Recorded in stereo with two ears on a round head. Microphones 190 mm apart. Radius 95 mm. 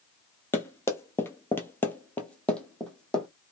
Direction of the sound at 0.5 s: 10° left (ahead or behind).